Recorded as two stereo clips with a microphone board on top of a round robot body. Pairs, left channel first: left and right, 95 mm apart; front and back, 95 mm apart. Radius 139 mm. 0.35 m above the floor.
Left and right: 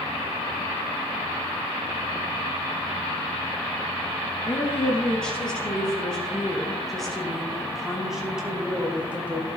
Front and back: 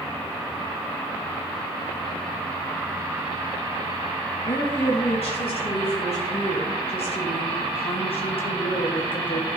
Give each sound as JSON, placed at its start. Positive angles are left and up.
{"t": 4.4, "sound": "a woman speaking", "azimuth_deg": 10, "distance_m": 5.0}